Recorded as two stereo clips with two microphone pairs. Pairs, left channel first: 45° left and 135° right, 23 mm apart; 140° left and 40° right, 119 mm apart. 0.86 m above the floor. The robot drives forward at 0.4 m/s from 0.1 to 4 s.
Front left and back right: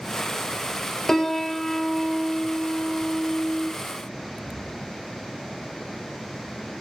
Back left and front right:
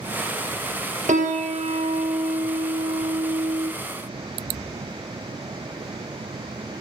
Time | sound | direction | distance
1.1 | a piano | 30° right | 1.6 m